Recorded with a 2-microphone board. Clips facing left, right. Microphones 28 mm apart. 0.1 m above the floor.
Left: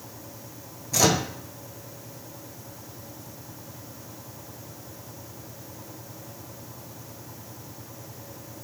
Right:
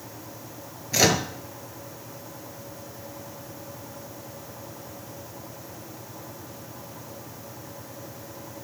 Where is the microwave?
30° right (ahead or behind), 1.4 m.